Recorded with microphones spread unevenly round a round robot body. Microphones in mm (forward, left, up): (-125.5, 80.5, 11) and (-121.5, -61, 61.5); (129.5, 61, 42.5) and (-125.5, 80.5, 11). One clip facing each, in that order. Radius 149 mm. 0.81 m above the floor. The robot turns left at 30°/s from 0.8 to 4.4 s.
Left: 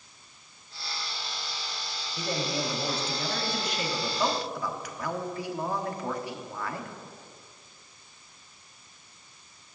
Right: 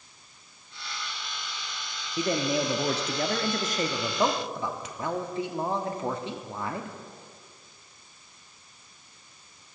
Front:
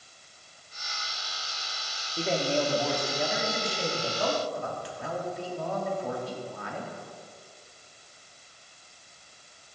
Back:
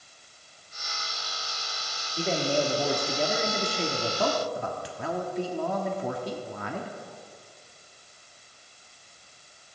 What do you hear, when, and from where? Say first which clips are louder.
2.2 s a man speaking: right 5 dB, back 1 dB; 95° right, 1.3 m; by 7.0 s 160° right, 1.3 m